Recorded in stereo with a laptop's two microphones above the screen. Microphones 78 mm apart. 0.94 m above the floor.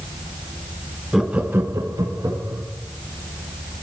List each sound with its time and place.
1.1 s laughter: centre (ahead or behind), 0.9 m; by 2.6 s 50° right (ahead or behind), 1.5 m